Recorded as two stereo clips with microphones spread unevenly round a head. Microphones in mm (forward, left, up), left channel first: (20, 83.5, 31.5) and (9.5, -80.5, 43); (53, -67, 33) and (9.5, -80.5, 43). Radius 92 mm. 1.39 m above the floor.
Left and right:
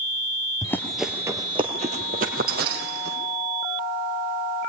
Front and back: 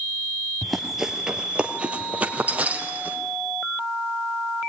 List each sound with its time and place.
0.6 s running footsteps: 140° left, 1.4 m; by 3.2 s 120° right, 3 m